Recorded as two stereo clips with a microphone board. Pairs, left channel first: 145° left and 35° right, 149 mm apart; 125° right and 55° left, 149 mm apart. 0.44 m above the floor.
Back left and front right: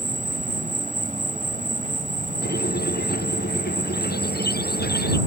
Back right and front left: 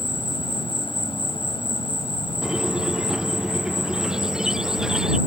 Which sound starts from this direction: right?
An insect, at 0.0 s.